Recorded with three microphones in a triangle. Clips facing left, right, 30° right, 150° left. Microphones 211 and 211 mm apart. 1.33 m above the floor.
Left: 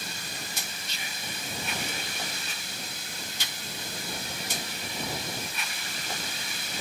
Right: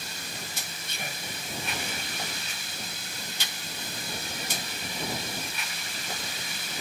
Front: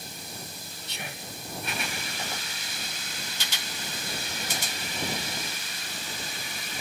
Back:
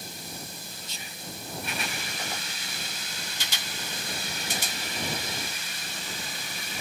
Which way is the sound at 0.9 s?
55° right.